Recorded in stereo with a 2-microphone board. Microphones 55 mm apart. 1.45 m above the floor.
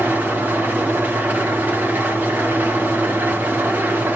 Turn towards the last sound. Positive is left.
turn(degrees=-30)  # may be behind; listen again after turning